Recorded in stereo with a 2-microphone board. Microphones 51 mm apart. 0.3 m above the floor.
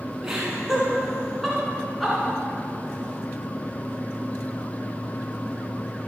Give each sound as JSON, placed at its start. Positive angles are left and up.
{"t": 0.2, "sound": "laughter", "side_deg": -10, "distance_m": 3.0}